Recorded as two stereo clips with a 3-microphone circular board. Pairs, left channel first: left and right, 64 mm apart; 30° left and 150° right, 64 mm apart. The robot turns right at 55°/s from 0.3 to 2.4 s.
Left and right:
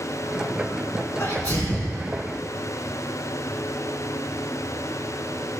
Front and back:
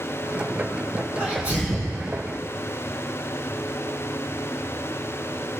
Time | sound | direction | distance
1.2 | a sneeze | 140° left | 4.5 m